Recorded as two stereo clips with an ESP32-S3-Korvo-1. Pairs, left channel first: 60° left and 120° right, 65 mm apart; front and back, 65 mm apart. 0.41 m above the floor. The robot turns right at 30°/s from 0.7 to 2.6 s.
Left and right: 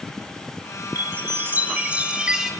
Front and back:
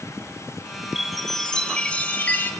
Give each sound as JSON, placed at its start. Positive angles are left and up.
{"t": 0.9, "sound": "a chime", "azimuth_deg": -90, "distance_m": 0.7}